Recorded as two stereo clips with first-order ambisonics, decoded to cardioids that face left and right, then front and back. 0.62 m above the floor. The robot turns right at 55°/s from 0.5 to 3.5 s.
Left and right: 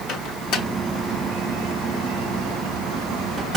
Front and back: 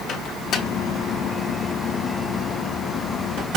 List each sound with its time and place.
0.1 s a microwave: 45° left, 1.4 m; by 3.6 s 150° right, 1.4 m